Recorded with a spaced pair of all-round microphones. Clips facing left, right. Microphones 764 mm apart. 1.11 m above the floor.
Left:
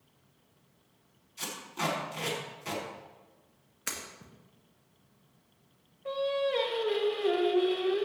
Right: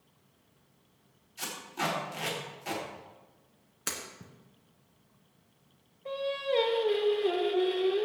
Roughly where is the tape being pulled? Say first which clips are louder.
Even; left.